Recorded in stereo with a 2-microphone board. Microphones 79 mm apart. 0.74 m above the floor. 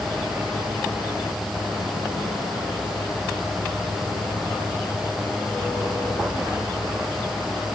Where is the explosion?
No explosion in this recording.